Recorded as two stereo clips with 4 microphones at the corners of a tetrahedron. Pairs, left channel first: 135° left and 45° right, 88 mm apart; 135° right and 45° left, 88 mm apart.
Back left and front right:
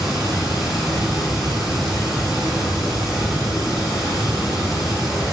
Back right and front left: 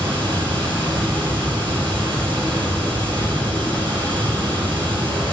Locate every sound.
0.0 s running water: 35° left, 3.5 m